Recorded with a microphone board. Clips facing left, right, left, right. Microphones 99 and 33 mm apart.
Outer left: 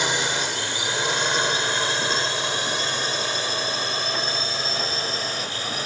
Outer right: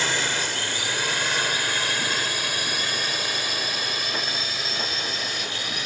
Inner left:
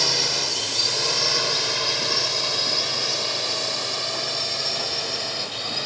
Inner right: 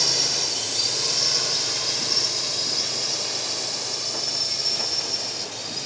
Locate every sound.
0.0 s a drone: 20° left (ahead or behind); by 5.9 s 35° left (ahead or behind)